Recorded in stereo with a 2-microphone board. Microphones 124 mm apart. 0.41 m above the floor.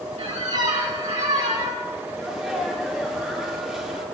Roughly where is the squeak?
Right.